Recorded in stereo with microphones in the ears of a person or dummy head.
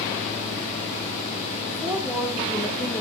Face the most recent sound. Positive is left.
turn(degrees=15)  # may be behind; listen again after turning